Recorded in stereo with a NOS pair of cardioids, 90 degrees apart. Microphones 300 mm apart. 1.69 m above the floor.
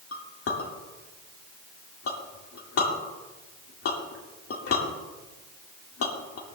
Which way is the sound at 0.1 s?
50° left.